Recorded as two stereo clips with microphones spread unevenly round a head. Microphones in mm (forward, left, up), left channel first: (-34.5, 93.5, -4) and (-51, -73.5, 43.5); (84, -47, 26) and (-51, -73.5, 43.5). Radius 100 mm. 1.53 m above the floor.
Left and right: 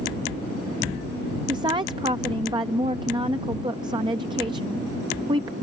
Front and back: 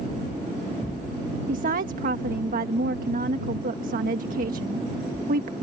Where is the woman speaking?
155° right.